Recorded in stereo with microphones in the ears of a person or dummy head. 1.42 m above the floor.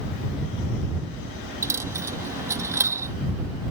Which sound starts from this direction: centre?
A dropped coin, at 1.6 s.